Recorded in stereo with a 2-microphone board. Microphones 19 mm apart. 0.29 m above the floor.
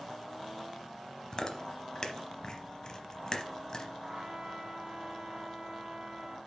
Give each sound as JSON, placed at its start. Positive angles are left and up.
{"t": 1.3, "sound": "chewing", "side_deg": 35, "distance_m": 0.8}
{"t": 4.0, "sound": "a trumpet", "side_deg": -35, "distance_m": 0.8}